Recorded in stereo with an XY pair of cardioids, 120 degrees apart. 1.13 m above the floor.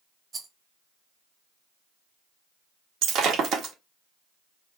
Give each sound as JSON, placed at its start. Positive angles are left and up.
{"t": 0.3, "sound": "a rattle", "azimuth_deg": -30, "distance_m": 0.8}
{"t": 3.0, "sound": "breaking glass", "azimuth_deg": -65, "distance_m": 1.1}